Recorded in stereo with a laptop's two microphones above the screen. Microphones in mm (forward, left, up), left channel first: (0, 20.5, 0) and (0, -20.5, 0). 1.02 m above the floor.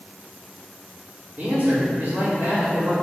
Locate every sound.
1.4 s a man speaking: 40° right (ahead or behind), 3 m